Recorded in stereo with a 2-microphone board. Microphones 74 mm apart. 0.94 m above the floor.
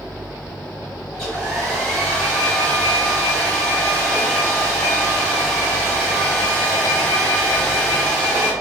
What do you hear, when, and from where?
1.1 s a hair dryer: 10° left (ahead or behind), 1.8 m